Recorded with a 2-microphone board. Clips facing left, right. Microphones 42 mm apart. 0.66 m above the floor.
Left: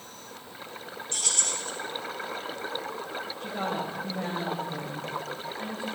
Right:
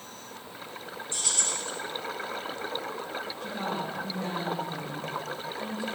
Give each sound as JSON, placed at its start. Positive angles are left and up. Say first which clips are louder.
{"t": 1.1, "sound": "keys jangling", "louder": "left 1 dB", "side_deg": 80, "distance_m": 3.5}
{"t": 3.4, "sound": "a woman speaking", "louder": "left 2 dB", "side_deg": 50, "distance_m": 3.0}